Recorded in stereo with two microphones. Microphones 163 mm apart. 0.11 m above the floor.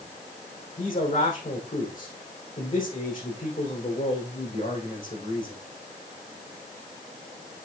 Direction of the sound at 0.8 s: 55° left (ahead or behind).